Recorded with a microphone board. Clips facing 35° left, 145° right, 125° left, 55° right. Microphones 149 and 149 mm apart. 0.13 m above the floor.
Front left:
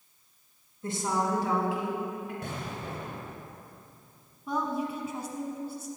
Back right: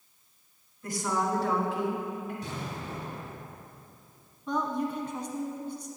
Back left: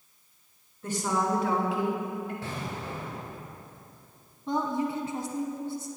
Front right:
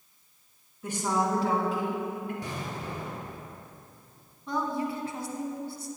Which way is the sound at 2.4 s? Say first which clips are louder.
Even, even; 15° left.